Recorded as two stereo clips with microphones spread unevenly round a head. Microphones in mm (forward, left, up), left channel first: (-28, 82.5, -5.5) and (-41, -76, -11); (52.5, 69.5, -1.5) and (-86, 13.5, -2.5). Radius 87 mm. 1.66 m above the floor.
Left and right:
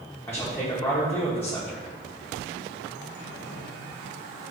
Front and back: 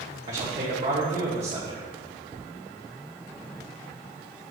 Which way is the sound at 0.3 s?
160° left.